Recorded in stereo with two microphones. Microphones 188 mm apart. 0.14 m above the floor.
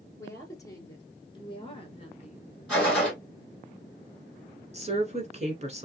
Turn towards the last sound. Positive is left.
turn(degrees=-35)  # may be behind; listen again after turning